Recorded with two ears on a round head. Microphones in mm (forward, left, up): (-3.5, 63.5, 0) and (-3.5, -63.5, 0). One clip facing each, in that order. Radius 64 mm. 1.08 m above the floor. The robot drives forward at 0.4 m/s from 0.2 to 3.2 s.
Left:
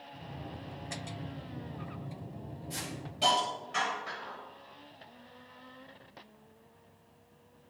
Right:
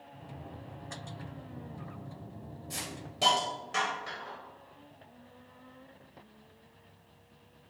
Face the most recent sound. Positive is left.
turn(degrees=-55)  # may be behind; listen again after turning